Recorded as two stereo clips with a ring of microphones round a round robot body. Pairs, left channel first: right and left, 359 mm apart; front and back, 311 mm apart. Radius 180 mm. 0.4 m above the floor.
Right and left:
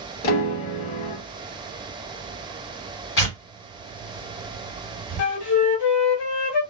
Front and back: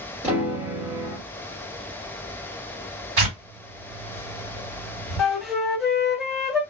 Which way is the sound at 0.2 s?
100° right.